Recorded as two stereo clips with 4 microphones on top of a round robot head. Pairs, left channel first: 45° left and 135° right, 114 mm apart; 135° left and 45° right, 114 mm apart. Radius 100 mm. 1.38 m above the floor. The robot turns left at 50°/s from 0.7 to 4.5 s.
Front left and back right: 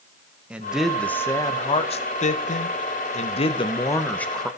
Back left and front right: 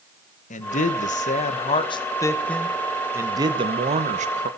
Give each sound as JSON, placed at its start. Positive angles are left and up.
{"t": 0.5, "sound": "a man speaking", "azimuth_deg": 145, "distance_m": 1.5}